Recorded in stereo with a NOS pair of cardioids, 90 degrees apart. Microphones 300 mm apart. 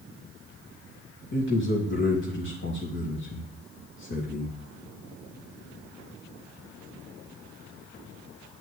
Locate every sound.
1.3 s a man speaking: 40° left, 3 m